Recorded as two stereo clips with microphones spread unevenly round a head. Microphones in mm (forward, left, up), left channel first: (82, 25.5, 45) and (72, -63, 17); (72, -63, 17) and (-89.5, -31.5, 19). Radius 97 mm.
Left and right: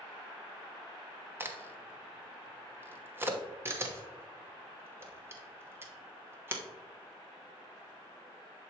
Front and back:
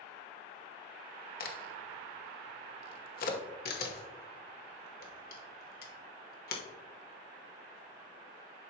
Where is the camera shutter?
30° right, 1.2 m.